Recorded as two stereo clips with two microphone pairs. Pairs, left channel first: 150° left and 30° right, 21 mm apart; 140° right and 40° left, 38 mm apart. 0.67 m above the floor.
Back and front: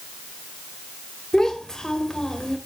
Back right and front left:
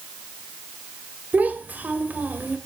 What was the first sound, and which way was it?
A child speaking, 80° left.